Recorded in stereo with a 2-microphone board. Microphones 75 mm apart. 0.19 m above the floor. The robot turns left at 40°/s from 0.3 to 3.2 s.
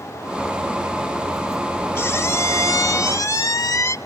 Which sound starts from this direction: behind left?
A squeak, at 1.9 s.